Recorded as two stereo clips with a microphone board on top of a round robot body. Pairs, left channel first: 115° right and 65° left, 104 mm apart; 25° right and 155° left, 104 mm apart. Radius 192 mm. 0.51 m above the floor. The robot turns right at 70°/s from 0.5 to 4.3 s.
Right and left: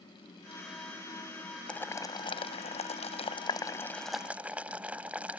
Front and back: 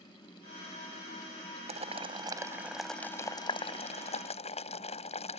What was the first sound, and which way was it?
Boiling, 170° left.